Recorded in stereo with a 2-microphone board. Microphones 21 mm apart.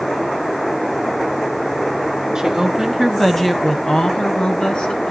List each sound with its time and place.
2.4 s a woman speaking: 20° right (ahead or behind), 1.6 m; by 5.1 s 65° left (ahead or behind), 2.5 m